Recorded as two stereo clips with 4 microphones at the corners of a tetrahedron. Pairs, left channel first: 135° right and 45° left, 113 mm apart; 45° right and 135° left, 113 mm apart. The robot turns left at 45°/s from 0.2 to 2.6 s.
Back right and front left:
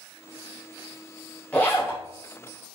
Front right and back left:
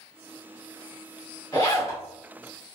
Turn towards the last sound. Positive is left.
turn(degrees=-115)